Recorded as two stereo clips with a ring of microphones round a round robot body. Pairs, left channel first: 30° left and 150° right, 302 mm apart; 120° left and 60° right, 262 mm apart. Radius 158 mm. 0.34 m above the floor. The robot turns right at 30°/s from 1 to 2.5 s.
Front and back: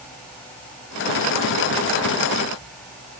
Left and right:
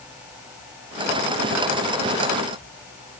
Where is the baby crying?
No baby crying in this recording.